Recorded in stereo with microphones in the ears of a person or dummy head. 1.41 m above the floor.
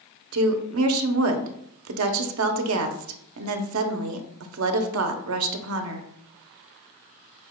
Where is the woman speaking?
70° right (ahead or behind), 0.7 m.